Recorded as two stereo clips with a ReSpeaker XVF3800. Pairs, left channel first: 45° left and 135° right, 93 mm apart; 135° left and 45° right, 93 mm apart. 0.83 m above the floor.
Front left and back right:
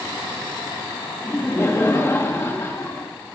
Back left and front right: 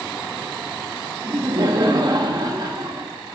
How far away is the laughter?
About 1.2 m.